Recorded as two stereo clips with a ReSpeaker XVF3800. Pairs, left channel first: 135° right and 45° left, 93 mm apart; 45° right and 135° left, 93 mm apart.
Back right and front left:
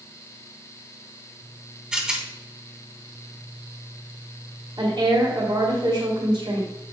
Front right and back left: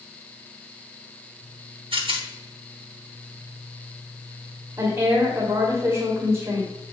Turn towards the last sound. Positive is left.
turn(degrees=75)